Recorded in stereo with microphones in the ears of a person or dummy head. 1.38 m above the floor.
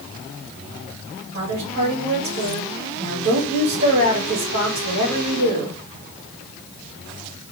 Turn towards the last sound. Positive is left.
turn(degrees=-70)  # may be behind; listen again after turning